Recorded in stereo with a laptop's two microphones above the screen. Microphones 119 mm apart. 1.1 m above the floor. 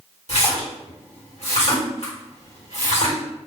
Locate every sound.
0.3 s a splash: 65° left (ahead or behind), 1.3 m